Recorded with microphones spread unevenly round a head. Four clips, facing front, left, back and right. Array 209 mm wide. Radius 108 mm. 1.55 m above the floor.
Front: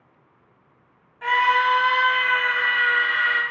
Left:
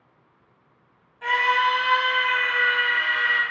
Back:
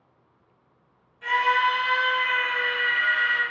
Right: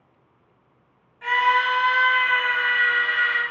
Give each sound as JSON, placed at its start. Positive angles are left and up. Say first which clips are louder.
{"t": 1.2, "sound": "a scream", "louder": "right 1 dB, front 3 dB", "azimuth_deg": 20, "distance_m": 3.0}